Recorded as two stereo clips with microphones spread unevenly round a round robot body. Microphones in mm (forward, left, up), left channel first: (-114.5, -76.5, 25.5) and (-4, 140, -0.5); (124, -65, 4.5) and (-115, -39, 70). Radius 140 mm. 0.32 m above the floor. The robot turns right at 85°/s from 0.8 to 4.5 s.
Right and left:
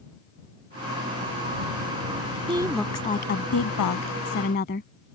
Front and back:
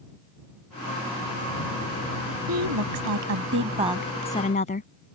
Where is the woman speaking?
130° left; by 4.9 s 60° right.